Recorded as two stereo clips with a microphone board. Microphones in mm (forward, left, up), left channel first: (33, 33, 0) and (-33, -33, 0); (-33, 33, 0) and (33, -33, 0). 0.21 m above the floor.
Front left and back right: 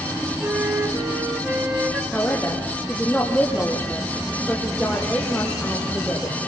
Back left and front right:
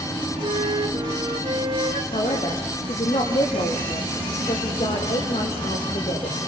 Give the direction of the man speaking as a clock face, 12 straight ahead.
8 o'clock.